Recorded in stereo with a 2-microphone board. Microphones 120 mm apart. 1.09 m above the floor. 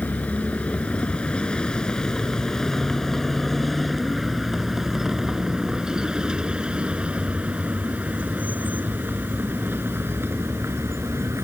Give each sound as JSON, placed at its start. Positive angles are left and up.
{"t": 0.0, "sound": "a vehicle", "side_deg": 15}